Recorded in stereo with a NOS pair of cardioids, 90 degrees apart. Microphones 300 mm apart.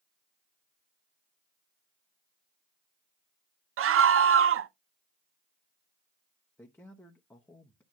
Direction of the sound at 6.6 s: 5° left.